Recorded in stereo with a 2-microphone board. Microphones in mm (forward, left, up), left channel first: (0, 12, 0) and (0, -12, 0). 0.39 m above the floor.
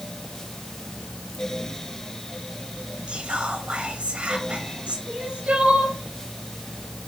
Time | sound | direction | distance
3.1 | whispering | 50° right (ahead or behind) | 2 m
5.1 | crying | 55° right (ahead or behind) | 2.5 m